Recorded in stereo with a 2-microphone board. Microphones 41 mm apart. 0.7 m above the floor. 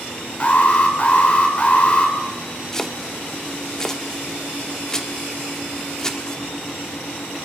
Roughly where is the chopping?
Centre.